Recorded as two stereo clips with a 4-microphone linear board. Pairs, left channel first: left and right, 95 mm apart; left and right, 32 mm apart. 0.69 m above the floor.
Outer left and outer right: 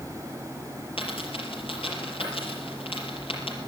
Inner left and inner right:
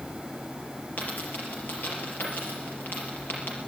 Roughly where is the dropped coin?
Left.